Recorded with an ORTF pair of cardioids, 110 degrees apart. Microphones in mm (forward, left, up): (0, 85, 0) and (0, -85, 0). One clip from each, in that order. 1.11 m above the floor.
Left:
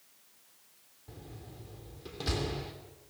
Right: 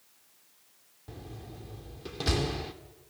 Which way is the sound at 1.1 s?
30° right.